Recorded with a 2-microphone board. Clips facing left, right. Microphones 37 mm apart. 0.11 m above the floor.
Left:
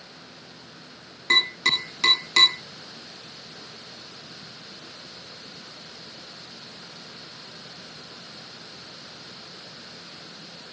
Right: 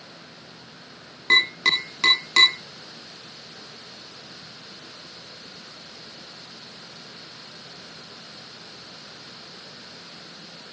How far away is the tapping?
About 6 m.